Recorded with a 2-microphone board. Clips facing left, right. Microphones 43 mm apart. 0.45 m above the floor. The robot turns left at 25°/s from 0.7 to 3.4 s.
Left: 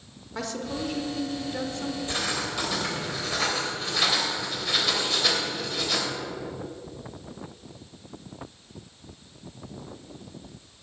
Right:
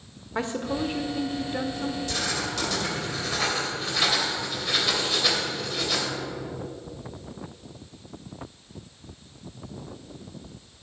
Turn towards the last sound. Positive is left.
turn(degrees=0)  # may be behind; listen again after turning